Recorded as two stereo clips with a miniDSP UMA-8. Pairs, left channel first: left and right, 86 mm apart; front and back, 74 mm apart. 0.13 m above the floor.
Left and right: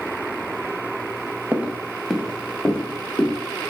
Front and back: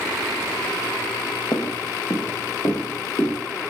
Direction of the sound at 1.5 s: 20° right.